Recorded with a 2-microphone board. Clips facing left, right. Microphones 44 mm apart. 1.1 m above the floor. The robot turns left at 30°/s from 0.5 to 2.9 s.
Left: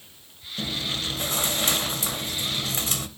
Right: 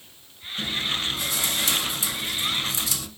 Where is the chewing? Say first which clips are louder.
Right 2 dB; 140° left, 1.1 m; by 3.1 s 70° left, 1.1 m.